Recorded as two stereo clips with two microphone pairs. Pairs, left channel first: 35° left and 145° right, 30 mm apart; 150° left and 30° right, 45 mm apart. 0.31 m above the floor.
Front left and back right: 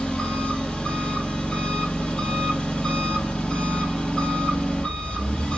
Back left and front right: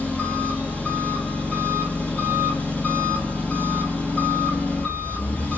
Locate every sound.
0.0 s an engine running: 95° left, 3.5 m